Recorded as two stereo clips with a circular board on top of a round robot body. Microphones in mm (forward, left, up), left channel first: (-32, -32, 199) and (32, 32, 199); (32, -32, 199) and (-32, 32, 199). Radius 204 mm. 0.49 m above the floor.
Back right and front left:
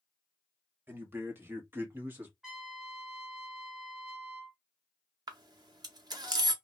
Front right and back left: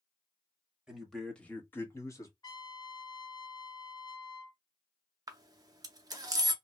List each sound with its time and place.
0.9 s a man speaking: 60° left, 1.3 m; by 2.3 s 15° right, 1.6 m
2.4 s a trumpet: 35° right, 1.7 m
5.3 s a camera shutter: 90° left, 0.7 m